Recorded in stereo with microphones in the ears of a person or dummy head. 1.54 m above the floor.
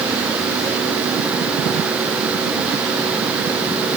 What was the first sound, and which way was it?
Only background noise.